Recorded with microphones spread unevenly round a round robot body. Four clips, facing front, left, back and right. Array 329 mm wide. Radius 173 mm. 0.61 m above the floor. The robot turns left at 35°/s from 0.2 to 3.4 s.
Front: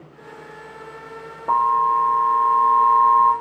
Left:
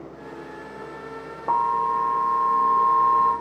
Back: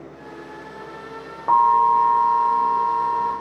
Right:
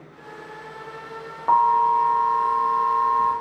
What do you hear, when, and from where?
1.5 s an alarm: 100° left, 1.1 m; by 3.3 s 35° left, 1.1 m